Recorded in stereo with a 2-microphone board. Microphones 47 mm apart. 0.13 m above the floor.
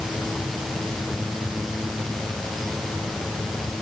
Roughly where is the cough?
No cough in this recording.